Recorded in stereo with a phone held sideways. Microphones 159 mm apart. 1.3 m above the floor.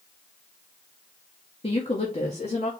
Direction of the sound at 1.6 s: 35° left (ahead or behind).